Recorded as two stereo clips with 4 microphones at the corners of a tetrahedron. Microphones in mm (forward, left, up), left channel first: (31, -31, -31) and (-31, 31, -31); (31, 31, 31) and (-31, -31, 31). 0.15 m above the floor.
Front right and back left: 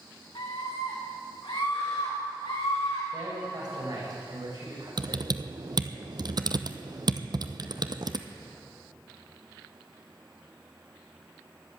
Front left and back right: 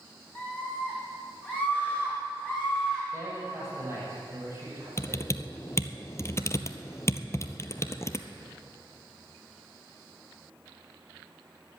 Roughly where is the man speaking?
Behind.